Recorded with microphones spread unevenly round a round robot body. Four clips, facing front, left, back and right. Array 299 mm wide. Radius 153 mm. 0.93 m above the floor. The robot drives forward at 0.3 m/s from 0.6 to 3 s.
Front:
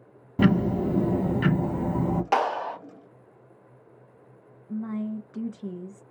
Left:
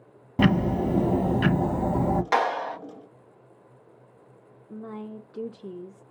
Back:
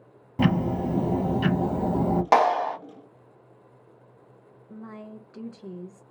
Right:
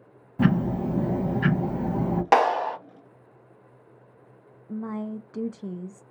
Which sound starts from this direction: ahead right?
A woman speaking, at 4.7 s.